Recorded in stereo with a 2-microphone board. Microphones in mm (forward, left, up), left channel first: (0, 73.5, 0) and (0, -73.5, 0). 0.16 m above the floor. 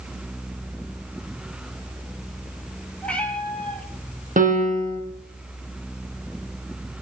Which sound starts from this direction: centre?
A cat meowing, at 3.0 s.